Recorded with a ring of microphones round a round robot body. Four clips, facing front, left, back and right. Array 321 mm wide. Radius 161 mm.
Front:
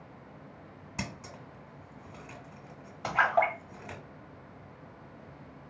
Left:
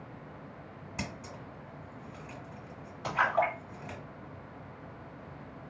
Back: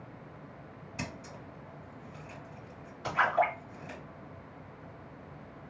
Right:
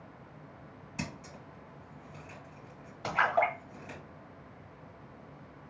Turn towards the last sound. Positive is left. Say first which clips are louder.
# even, front 1 dB
turn(degrees=-25)